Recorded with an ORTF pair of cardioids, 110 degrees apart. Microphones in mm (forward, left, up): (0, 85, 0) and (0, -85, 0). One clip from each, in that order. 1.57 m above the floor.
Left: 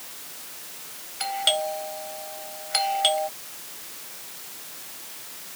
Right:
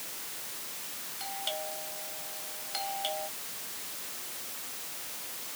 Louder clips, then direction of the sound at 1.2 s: Left 13 dB; 60° left.